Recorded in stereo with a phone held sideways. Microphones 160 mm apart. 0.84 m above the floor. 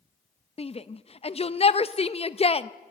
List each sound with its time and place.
0.6 s a shout: 40° left (ahead or behind), 0.6 m